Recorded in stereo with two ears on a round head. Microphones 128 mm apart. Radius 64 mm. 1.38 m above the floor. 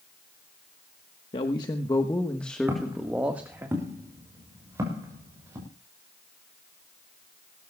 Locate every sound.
1.3 s a man speaking: 35° left (ahead or behind), 1.3 m; by 3.7 s 15° right (ahead or behind), 1.7 m
2.7 s footsteps: 20° right (ahead or behind), 5 m